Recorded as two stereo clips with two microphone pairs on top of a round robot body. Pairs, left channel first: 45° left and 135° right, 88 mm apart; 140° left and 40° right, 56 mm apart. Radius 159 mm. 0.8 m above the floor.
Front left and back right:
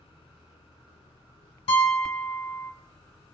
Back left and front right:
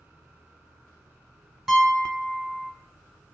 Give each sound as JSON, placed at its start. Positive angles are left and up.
{"t": 1.7, "sound": "a piano", "azimuth_deg": 40, "distance_m": 1.5}